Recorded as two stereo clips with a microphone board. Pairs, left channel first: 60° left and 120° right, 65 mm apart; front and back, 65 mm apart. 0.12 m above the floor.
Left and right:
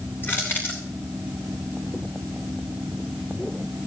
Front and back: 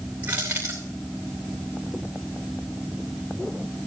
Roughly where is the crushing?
Behind left.